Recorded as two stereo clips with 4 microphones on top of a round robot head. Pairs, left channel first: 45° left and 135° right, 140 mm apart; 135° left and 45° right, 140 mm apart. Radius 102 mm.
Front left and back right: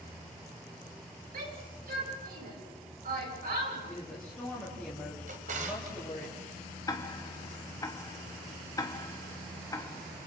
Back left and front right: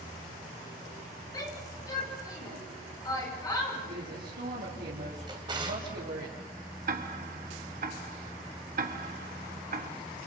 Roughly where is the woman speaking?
Ahead right.